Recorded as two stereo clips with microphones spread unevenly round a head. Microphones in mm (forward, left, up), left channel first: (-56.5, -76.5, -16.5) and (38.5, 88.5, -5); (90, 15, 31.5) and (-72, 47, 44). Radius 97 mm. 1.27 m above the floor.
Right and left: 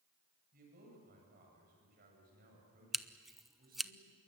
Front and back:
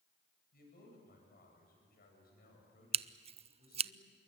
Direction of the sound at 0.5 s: 15° left.